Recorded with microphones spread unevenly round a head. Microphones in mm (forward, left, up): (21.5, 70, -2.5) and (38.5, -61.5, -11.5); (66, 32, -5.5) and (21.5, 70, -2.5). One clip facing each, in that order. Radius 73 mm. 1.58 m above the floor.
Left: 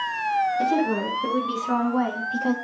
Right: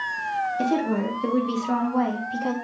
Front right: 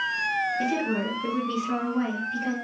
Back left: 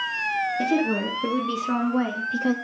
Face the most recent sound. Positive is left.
turn(degrees=-175)